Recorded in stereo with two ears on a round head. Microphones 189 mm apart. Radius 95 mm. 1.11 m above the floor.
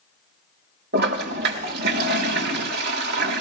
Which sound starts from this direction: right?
A toilet flushing, at 0.9 s.